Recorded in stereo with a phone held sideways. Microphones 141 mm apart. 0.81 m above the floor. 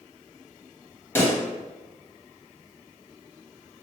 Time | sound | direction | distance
1.1 | a pop | 20° left (ahead or behind) | 0.9 m